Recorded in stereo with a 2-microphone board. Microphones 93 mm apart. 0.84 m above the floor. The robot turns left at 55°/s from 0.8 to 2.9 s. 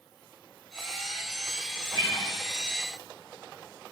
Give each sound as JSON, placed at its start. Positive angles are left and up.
{"t": 1.9, "sound": "a guitar", "side_deg": 50, "distance_m": 3.0}